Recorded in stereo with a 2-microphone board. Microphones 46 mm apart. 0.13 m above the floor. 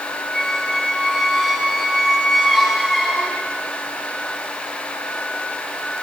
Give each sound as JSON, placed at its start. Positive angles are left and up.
{"t": 0.3, "sound": "a squeak", "side_deg": 10, "distance_m": 10.0}